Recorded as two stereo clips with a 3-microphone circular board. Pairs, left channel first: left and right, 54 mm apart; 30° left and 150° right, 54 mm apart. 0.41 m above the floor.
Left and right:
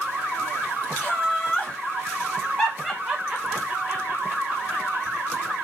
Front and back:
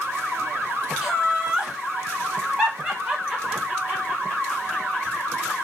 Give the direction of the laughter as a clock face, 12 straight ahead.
8 o'clock.